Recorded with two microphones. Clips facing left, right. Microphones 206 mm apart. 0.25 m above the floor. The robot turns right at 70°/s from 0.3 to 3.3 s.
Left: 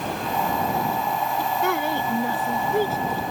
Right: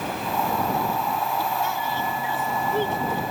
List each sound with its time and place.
1.6 s a woman speaking: 85° left; by 3.2 s 165° right